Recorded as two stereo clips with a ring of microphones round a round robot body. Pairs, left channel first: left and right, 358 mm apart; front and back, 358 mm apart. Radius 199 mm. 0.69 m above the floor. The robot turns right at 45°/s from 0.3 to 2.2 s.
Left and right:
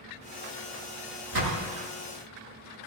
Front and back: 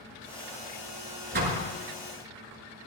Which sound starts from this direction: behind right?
A door slam, at 1.3 s.